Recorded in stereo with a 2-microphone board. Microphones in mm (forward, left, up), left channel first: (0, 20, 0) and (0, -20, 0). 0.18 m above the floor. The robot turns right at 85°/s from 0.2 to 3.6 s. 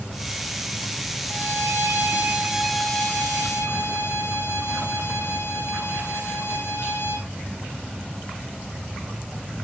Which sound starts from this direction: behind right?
A violin, at 1.3 s.